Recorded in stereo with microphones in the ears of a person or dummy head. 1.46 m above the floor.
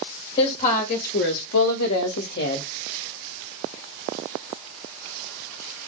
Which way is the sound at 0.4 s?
30° left (ahead or behind).